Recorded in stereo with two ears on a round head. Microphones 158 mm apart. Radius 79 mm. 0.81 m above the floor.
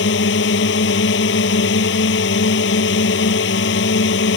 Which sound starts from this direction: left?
A drone, at 0.0 s.